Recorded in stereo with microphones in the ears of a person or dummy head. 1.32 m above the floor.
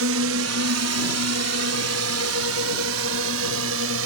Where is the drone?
75° right (ahead or behind); by 4.1 s 70° right (ahead or behind).